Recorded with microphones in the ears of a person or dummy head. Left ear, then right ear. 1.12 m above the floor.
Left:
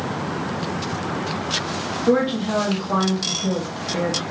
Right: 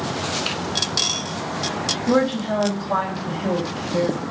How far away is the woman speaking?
About 1.5 m.